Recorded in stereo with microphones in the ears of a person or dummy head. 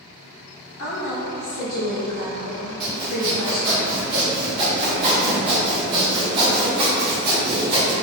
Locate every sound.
0.8 s a woman speaking: 50° left (ahead or behind), 0.7 m
2.8 s sawing: 25° right (ahead or behind), 0.5 m